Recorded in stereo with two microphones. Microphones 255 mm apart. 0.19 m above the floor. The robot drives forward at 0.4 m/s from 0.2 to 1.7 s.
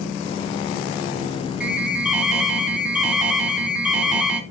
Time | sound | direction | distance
1.6 | an alarm | 5° right (ahead or behind) | 2.5 m